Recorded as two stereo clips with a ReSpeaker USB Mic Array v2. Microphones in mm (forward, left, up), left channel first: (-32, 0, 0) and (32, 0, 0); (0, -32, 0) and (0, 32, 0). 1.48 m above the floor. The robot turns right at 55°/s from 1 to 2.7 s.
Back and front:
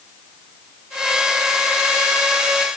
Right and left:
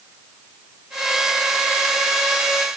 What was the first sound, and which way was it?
Only background noise.